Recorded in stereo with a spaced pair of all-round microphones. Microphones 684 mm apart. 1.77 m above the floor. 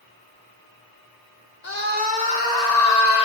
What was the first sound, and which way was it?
A scream, 70° left (ahead or behind).